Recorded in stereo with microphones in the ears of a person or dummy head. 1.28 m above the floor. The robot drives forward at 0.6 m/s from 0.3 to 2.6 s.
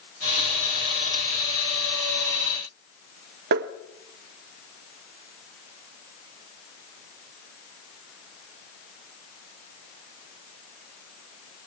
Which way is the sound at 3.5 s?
50° right (ahead or behind).